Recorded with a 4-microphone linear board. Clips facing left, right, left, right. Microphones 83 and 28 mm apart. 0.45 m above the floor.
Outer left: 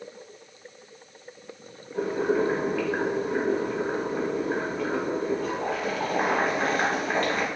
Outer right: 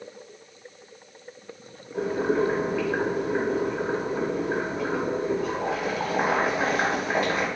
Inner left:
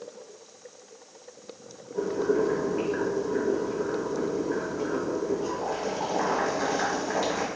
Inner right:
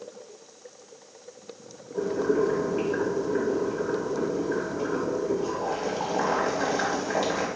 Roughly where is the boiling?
Centre.